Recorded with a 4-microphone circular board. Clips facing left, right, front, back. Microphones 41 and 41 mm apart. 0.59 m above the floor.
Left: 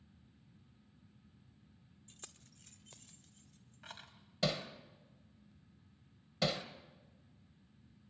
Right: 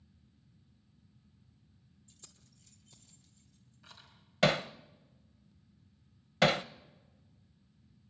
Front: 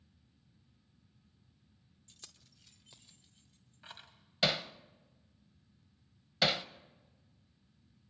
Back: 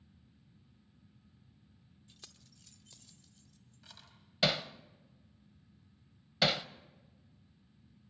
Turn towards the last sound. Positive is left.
turn(degrees=-95)